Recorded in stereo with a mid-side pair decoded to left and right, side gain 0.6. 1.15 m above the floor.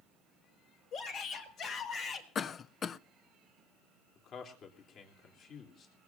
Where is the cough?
40° left, 0.5 m.